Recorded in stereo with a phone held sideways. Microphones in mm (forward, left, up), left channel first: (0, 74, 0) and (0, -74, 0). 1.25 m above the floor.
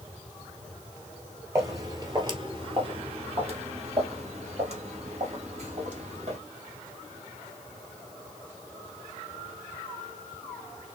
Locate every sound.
1.6 s footsteps: 20° right (ahead or behind), 1.5 m; by 6.4 s 50° right (ahead or behind), 2.5 m